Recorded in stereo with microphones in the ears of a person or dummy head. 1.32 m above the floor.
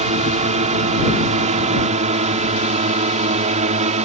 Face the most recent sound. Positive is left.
turn(degrees=-35)  # may be behind; listen again after turning